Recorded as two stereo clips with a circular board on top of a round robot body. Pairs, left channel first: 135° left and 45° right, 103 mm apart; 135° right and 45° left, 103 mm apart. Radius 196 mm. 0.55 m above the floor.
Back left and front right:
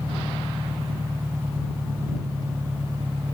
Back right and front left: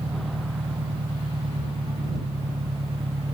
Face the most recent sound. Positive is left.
turn(degrees=20)